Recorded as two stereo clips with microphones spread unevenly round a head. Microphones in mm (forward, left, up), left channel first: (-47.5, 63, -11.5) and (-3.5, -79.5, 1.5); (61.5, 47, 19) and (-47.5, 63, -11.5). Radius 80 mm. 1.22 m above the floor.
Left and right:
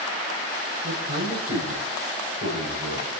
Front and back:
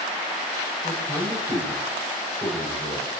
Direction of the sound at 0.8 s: 95° right.